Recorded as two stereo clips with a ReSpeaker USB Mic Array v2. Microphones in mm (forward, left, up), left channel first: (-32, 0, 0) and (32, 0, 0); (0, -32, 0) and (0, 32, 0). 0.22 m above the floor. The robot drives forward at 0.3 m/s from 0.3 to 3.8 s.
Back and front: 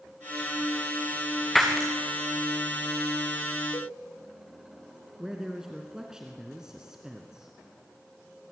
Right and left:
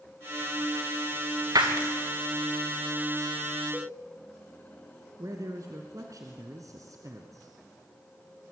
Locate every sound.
1.6 s breaking glass: 95° left, 4 m
3.7 s a cowbell: straight behind, 6 m
5.2 s a man speaking: 80° left, 2.5 m